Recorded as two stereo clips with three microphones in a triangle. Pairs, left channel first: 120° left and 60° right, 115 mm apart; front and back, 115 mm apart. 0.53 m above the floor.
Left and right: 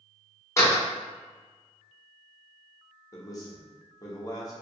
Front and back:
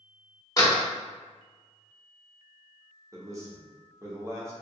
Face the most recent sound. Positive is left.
turn(degrees=145)